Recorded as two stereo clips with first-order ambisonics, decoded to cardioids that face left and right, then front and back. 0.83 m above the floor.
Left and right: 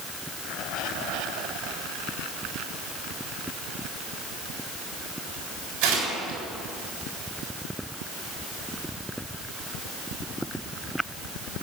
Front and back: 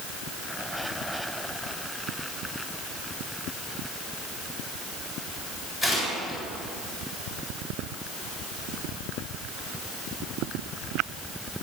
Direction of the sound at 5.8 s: 70° right.